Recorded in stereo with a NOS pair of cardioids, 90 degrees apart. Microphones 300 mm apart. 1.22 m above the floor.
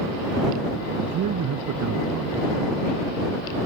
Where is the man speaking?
70° right.